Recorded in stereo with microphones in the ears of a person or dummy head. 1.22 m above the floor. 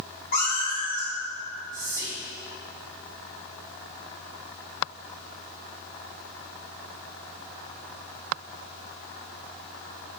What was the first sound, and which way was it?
A cat meowing, 55° left (ahead or behind).